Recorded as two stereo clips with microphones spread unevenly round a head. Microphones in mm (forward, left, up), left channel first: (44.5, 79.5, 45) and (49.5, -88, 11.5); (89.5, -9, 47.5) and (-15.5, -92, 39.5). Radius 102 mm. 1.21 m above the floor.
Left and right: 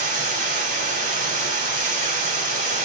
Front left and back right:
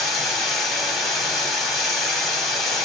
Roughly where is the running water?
Ahead right.